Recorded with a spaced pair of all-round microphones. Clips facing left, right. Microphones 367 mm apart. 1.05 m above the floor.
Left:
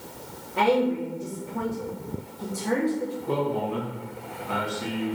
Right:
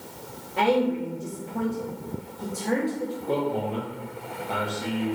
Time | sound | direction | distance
0.6 | a woman speaking | 10° left (ahead or behind) | 0.7 m
3.3 | a man speaking | 20° left (ahead or behind) | 1.0 m